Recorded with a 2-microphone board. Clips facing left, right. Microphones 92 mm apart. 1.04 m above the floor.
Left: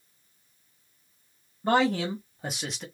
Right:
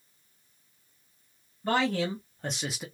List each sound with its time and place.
1.6 s a man speaking: 25° left (ahead or behind), 1.3 m; by 2.9 s 10° right (ahead or behind), 0.7 m